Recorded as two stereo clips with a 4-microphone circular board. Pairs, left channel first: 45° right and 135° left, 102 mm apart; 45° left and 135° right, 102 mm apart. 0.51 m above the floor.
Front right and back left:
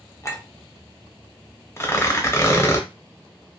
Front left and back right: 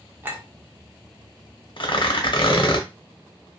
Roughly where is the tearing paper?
Ahead.